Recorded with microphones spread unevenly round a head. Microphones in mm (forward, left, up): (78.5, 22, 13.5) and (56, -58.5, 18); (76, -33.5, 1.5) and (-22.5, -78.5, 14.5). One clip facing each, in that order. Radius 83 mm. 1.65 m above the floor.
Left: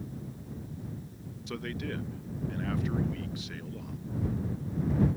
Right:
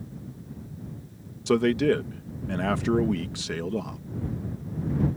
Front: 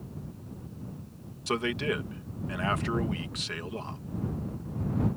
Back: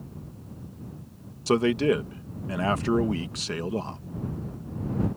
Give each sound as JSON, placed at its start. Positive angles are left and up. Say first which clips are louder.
{"t": 1.5, "sound": "a man speaking", "louder": "right 16 dB, back 8 dB", "azimuth_deg": -105}